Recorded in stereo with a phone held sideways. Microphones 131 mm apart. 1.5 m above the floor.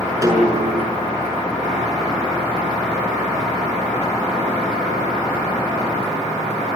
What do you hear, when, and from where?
0.2 s a snare drum: 25° right (ahead or behind), 6 m